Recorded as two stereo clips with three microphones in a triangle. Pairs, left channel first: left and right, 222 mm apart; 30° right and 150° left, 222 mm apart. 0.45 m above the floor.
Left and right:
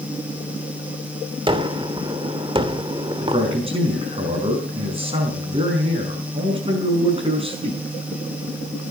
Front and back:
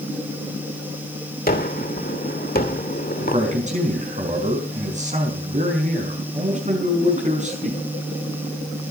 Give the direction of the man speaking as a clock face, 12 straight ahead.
5 o'clock.